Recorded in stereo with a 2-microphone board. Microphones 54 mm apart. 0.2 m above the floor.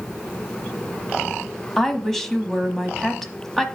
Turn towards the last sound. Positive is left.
turn(degrees=5)  # may be behind; listen again after turning